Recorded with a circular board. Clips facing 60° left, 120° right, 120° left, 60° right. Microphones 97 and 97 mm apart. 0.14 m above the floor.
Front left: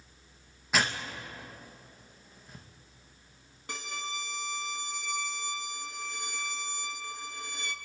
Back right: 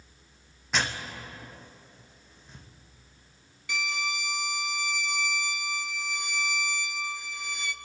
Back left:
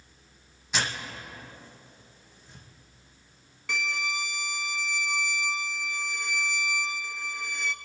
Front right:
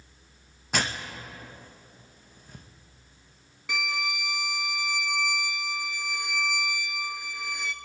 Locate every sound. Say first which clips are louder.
0.7 s tearing paper: front left 1 dB, front right 2 dB; 25° right, 2.5 m
3.7 s a violin: back right 6 dB, front right 1 dB; 25° left, 0.9 m